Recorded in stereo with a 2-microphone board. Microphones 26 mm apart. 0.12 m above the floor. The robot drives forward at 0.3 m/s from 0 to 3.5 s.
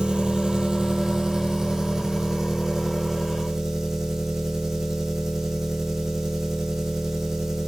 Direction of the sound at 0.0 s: 45° right (ahead or behind).